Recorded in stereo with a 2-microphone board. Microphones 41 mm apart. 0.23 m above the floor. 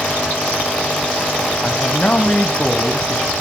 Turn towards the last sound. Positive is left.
turn(degrees=30)  # may be behind; listen again after turning